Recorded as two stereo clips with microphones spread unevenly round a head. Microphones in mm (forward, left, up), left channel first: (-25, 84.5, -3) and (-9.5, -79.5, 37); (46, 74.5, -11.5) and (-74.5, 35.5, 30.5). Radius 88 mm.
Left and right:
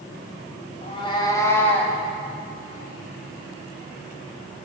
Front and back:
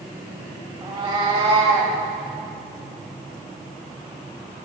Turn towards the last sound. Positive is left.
turn(degrees=-175)